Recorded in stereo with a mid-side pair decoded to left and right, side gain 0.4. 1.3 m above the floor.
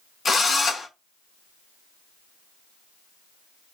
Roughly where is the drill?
Ahead left.